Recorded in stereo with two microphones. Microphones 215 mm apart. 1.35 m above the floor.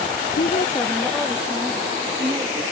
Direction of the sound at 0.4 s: 55° left (ahead or behind).